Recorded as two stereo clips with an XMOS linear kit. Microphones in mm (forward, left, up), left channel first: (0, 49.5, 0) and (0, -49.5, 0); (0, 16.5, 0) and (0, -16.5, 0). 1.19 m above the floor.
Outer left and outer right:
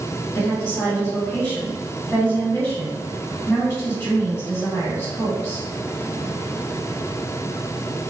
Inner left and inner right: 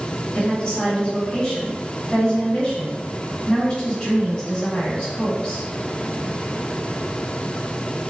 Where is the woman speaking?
25° left (ahead or behind), 2.0 m.